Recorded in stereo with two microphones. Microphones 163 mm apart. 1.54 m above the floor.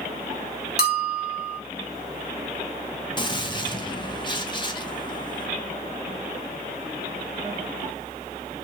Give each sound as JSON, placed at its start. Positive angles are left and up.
{"t": 0.8, "sound": "a bell", "side_deg": 75, "distance_m": 0.7}
{"t": 3.2, "sound": "a gunshot", "side_deg": 30, "distance_m": 0.8}